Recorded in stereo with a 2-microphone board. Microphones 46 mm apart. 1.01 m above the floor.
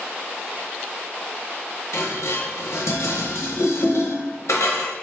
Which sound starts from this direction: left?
Dishes clattering, at 1.9 s.